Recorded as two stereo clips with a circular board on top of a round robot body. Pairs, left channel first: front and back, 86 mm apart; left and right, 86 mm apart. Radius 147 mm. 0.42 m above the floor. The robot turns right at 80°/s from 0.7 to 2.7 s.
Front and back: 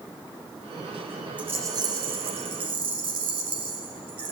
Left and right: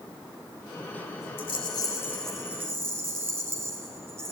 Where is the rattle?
105° left, 1.0 m; by 4.3 s 150° right, 1.0 m.